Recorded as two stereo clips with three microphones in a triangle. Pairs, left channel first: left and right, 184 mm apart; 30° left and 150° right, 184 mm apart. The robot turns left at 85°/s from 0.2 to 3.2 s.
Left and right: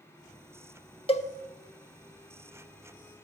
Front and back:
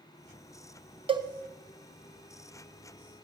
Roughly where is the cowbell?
Behind left.